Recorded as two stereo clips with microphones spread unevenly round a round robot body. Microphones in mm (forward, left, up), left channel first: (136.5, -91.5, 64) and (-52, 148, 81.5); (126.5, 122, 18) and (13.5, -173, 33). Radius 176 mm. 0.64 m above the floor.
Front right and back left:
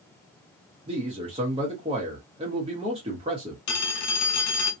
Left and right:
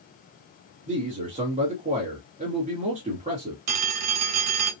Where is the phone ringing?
85° right, 1.0 m.